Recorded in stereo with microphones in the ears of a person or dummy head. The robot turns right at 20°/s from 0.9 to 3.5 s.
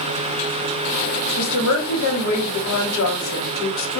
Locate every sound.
1.4 s a woman speaking: 65° left, 1.0 m; by 4.0 s 105° left, 1.0 m